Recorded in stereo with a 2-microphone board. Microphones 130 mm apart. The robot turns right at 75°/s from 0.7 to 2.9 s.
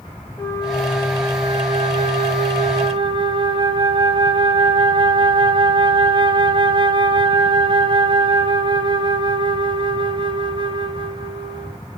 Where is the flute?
155° left, 1.2 m; by 11.8 s 40° right, 1.2 m.